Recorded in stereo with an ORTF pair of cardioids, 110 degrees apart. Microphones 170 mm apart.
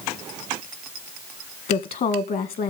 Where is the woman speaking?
55° left, 1.9 m.